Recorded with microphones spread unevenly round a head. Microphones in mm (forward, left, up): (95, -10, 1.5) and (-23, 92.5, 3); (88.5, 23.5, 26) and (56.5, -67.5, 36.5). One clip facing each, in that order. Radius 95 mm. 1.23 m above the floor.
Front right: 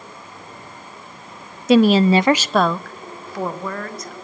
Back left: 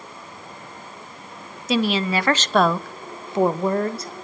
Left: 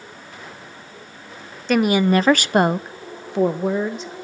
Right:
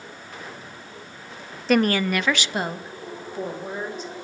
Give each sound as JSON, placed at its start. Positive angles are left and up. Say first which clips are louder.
{"t": 1.7, "sound": "a woman speaking", "louder": "front right 9 dB, left 3 dB", "azimuth_deg": -15, "distance_m": 0.5}